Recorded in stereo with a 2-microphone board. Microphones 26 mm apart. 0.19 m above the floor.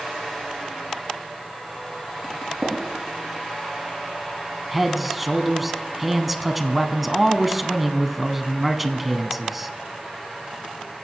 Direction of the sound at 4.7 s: 5° right (ahead or behind).